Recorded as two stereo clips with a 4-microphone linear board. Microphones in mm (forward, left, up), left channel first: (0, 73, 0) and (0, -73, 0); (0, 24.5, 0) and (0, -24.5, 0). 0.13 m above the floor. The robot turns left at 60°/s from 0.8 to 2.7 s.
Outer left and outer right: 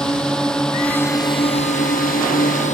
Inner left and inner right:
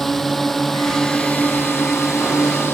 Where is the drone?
175° left; by 2.7 s 60° left.